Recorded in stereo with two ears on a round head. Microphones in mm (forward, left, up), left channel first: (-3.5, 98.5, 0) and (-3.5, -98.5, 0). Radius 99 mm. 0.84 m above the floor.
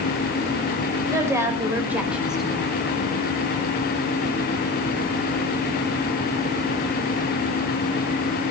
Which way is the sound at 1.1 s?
15° right (ahead or behind).